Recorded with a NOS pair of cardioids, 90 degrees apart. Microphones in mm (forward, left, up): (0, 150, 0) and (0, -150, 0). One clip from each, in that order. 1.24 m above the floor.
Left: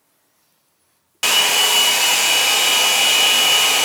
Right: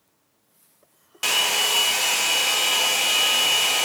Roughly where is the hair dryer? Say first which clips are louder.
Left 6 dB; ahead left.